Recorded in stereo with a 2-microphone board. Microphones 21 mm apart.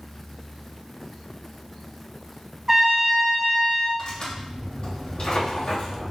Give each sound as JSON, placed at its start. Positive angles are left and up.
{"t": 2.7, "sound": "a trumpet", "side_deg": -20, "distance_m": 0.7}
{"t": 4.0, "sound": "tearing paper", "side_deg": 55, "distance_m": 1.7}